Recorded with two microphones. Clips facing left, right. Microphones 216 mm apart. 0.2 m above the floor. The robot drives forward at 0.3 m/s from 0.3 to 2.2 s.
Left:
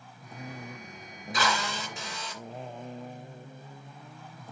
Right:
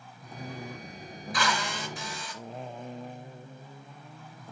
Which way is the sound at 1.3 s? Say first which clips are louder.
Left 1 dB; 25° left (ahead or behind).